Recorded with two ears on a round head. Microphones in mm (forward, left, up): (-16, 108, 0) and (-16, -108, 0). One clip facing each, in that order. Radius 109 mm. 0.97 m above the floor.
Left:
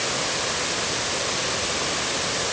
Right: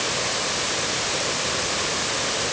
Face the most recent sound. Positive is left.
No sound to turn to.